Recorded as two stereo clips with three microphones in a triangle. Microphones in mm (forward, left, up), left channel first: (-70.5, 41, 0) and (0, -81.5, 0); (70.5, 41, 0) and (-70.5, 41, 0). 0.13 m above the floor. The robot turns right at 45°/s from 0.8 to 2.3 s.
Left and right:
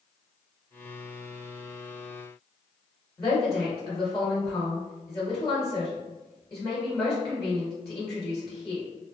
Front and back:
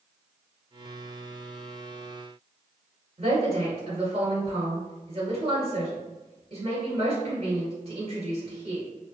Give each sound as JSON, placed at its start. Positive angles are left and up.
{"t": 3.2, "sound": "a woman speaking", "azimuth_deg": 165, "distance_m": 1.6}